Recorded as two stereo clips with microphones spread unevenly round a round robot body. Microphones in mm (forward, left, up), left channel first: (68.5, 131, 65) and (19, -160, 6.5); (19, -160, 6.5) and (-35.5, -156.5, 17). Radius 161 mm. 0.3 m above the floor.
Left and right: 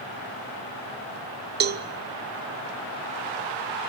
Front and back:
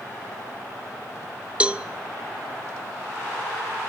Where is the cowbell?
105° right, 0.8 m.